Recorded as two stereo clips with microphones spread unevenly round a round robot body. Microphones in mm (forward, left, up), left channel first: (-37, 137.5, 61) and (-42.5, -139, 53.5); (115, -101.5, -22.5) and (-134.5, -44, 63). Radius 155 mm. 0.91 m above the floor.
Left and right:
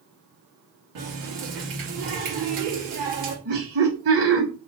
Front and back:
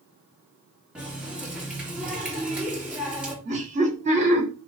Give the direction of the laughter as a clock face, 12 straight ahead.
4 o'clock.